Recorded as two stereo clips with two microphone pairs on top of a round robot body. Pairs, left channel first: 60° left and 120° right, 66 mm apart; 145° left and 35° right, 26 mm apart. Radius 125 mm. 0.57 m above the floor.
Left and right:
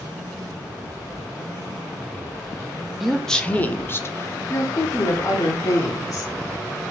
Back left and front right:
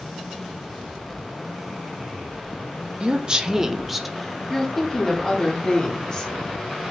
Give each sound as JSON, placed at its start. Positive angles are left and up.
{"t": 3.0, "sound": "a woman speaking", "azimuth_deg": -25, "distance_m": 0.7}